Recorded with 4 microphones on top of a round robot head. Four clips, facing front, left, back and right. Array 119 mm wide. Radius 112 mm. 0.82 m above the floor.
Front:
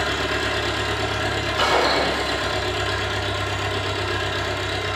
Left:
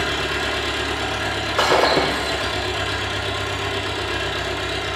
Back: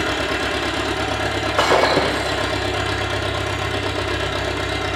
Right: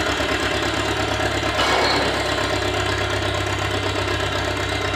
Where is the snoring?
No snoring in this recording.